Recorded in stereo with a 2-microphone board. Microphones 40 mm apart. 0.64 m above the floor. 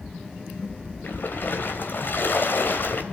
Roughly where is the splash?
Left.